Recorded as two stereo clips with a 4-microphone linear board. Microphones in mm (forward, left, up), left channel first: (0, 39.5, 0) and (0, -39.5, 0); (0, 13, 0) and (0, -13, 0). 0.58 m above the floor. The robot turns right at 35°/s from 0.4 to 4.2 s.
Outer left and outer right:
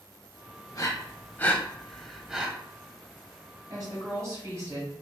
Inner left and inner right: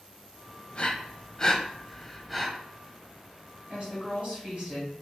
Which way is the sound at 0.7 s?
45° left (ahead or behind).